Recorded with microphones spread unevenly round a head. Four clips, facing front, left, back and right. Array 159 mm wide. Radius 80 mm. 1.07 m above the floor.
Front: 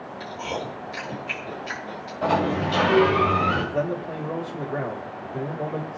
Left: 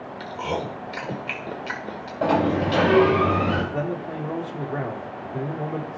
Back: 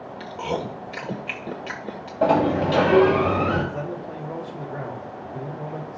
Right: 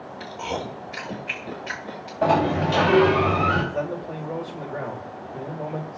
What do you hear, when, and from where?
0.2 s chewing: 145° left, 1.4 m
2.2 s a sliding door: 150° left, 2.5 m
3.7 s a man speaking: 70° left, 2.5 m